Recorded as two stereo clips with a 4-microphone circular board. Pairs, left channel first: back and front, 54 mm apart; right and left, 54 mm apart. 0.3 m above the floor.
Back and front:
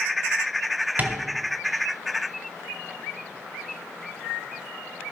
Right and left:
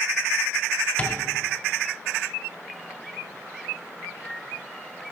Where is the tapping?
30° right, 1.8 m.